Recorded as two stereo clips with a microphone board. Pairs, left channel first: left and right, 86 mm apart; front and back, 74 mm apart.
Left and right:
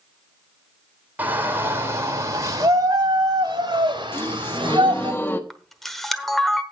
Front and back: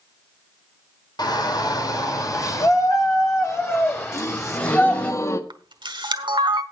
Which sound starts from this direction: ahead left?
A gasp, at 4.1 s.